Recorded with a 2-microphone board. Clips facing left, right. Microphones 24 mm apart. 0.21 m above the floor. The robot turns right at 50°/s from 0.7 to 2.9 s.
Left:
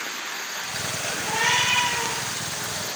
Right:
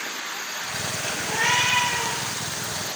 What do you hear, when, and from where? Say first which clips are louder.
1.2 s a cat meowing: even; 120° left, 1.6 m; by 2.2 s 165° left, 1.6 m